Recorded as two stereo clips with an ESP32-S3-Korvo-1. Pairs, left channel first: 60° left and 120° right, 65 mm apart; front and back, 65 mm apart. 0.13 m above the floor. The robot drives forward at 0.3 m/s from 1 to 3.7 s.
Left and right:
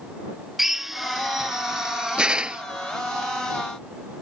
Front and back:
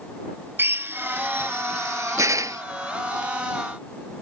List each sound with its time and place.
0.6 s a drill: 155° left; by 2.6 s 170° left